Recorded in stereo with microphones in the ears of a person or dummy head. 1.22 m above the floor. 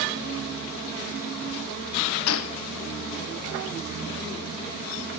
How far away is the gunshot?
About 0.5 m.